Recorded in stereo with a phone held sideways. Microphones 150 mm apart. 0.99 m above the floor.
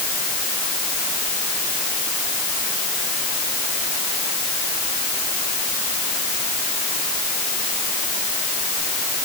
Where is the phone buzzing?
No phone buzzing in this recording.